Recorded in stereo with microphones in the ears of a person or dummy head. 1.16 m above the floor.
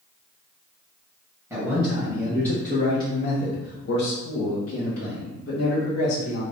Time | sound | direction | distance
1.5 | a man speaking | 10° right (ahead or behind) | 1.3 m